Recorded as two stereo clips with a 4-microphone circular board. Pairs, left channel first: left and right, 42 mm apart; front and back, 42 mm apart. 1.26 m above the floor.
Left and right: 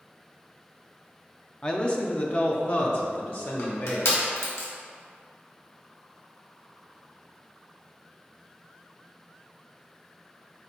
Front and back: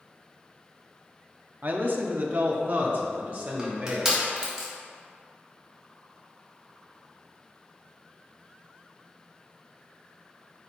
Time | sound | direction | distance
1.6 | a man speaking | 150° left | 0.6 m
3.6 | crushing | 105° left | 1.7 m